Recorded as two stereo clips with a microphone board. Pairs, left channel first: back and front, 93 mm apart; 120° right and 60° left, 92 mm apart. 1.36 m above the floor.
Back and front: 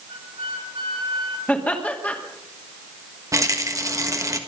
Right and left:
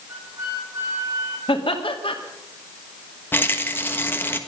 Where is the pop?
I don't hear a pop.